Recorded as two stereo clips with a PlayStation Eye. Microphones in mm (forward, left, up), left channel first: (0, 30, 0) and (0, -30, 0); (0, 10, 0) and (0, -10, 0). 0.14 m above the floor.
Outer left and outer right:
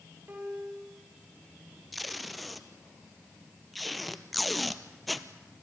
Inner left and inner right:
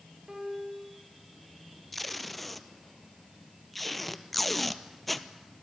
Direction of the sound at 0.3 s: 30° right (ahead or behind).